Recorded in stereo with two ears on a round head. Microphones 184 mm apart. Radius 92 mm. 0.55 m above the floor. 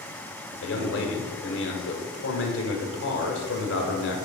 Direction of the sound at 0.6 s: 65° left (ahead or behind).